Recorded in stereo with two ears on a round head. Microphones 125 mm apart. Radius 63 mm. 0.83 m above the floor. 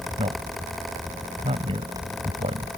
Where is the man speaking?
40° right (ahead or behind).